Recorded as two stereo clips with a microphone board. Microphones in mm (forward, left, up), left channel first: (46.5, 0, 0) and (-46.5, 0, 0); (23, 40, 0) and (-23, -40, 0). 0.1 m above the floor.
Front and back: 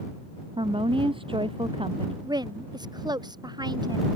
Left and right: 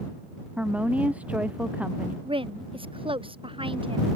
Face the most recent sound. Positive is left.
turn(degrees=-140)